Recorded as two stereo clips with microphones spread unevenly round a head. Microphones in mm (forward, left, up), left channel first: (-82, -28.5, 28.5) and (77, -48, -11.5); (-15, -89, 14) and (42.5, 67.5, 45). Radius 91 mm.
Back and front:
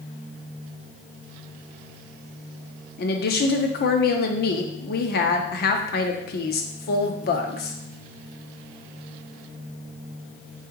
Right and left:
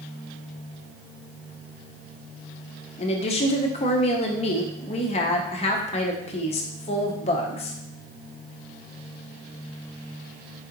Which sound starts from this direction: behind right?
A woman speaking, at 3.0 s.